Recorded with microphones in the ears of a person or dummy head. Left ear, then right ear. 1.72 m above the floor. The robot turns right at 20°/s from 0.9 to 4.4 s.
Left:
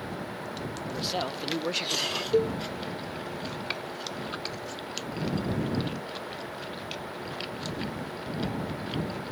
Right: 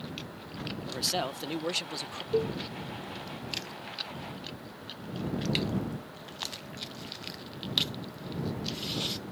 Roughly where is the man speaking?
Centre.